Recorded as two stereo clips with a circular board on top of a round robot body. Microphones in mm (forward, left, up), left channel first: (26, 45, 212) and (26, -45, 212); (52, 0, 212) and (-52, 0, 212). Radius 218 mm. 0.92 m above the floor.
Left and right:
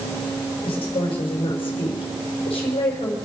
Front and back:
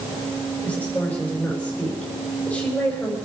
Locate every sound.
0.6 s a woman speaking: 75° left, 4.5 m